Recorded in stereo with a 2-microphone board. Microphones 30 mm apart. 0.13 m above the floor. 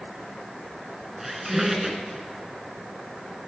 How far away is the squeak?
About 1.2 m.